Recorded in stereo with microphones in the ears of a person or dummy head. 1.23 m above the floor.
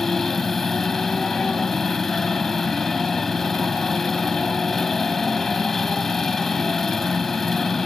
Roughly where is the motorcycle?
Centre.